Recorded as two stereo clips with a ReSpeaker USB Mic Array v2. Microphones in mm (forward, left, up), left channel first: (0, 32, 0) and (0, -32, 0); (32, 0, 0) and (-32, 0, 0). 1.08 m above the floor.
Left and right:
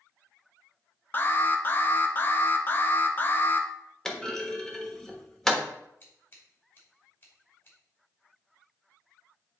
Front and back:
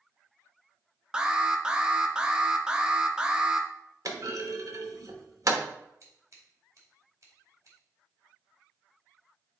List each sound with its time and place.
1.1 s an alarm: 115° left, 0.7 m
4.0 s a clunk: 170° left, 1.1 m
6.0 s scissors: 145° left, 2.5 m